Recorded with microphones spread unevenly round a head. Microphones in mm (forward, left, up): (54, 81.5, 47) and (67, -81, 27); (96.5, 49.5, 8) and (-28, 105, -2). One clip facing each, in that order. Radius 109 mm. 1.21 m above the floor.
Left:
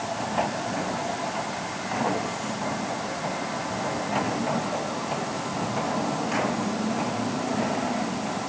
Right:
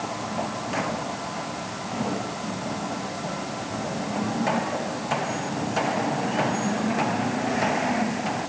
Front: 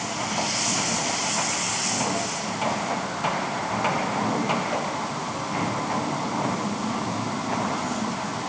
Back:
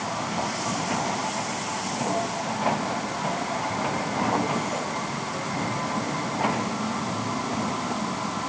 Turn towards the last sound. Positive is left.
No sound to turn to.